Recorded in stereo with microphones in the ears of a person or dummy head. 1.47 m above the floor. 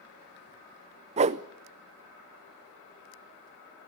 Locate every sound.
1.2 s a whoosh: 35° right (ahead or behind), 0.5 m